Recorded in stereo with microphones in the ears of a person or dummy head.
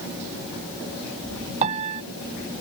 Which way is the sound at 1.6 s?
35° right (ahead or behind).